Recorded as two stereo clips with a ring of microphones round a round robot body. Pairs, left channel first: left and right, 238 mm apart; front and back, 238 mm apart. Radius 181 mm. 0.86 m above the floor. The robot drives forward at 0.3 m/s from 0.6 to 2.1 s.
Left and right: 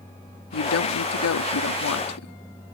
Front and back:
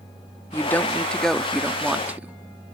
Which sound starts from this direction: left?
A woman speaking, at 0.5 s.